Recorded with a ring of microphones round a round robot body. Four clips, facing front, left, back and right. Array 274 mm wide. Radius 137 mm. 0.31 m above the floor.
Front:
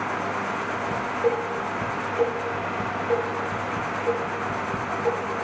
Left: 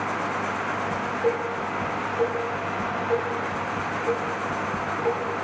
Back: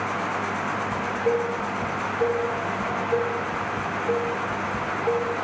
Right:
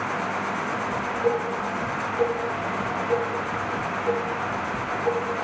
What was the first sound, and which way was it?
Dishes clattering, 15° left.